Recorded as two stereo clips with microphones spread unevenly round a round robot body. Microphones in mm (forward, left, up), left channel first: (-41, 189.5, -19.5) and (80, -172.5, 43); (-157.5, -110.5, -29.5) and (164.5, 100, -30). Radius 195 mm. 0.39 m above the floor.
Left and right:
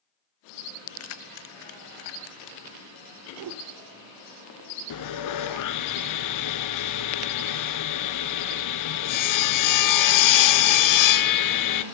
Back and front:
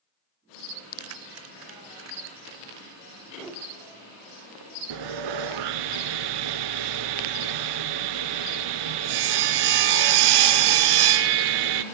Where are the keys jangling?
75° left, 0.7 m; by 2.6 s 95° left, 1.6 m.